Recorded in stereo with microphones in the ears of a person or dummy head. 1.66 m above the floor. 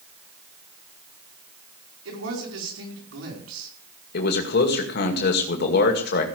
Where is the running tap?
No running tap in this recording.